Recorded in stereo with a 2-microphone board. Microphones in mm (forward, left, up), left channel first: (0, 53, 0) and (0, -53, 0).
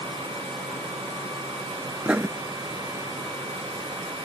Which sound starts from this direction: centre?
Writing, at 2.0 s.